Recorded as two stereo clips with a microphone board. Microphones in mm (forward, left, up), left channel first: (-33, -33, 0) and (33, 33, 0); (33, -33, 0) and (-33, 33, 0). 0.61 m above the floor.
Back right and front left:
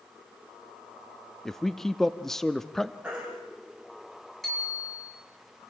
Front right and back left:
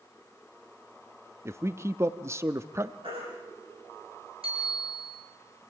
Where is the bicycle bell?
135° left, 7.5 m.